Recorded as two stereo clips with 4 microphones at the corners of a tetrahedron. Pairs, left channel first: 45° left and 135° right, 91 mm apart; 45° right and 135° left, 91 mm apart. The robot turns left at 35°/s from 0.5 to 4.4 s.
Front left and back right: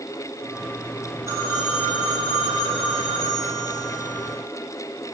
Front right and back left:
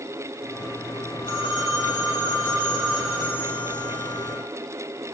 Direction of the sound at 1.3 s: 75° right.